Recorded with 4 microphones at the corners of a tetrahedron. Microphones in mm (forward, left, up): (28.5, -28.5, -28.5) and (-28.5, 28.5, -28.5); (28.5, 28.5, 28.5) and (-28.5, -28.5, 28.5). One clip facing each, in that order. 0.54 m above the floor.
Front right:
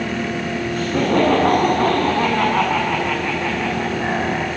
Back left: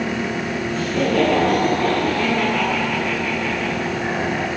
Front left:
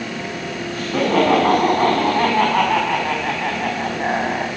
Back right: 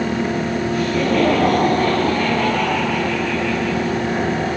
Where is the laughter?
10° right, 7 m; by 4.5 s 25° left, 5 m.